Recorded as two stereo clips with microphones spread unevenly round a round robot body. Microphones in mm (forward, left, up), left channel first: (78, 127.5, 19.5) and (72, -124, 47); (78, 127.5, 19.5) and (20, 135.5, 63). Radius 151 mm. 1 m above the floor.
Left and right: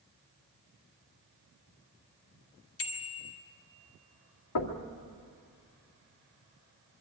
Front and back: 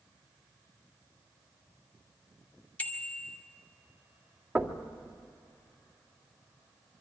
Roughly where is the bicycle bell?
Ahead left.